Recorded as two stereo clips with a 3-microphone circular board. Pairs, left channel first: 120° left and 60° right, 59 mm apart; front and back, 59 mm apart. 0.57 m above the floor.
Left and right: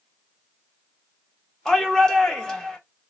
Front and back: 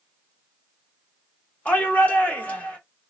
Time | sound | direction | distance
1.6 | a shout | 50° left | 1.5 m